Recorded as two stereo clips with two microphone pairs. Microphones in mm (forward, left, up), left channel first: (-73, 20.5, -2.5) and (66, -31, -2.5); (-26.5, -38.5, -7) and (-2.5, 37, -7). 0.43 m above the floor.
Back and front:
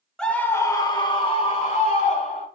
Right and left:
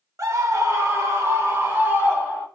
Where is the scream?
75° left, 0.9 m; by 2.5 s 135° left, 1.8 m.